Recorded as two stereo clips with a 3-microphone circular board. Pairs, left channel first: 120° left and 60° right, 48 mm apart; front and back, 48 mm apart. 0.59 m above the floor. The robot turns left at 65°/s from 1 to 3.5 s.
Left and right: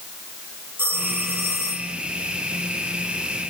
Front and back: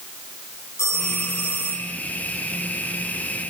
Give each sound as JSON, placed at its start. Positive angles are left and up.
{"t": 0.8, "sound": "a phone ringing", "azimuth_deg": -20, "distance_m": 9.5}